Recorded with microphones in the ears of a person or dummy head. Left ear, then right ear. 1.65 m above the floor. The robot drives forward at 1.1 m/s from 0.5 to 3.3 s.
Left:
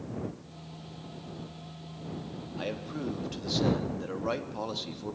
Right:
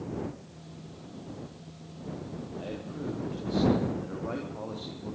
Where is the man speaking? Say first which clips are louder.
Left 4 dB; 70° left (ahead or behind), 3 m; by 5.2 s 80° left, 2.5 m.